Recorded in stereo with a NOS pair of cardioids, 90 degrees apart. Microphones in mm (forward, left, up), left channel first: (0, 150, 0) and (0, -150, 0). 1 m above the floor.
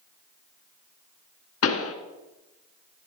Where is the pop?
55° left, 2.5 m.